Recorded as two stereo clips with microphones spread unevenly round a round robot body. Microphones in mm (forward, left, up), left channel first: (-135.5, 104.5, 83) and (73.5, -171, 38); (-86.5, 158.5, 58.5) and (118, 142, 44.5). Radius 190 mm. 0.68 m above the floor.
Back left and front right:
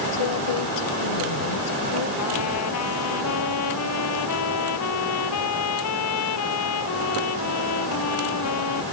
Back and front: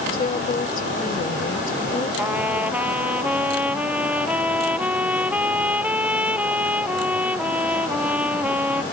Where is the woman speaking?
125° left.